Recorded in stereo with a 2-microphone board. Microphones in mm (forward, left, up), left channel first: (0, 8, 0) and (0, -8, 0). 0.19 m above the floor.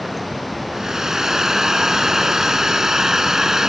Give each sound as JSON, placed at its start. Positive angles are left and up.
{"t": 0.7, "sound": "a hair dryer", "side_deg": -35}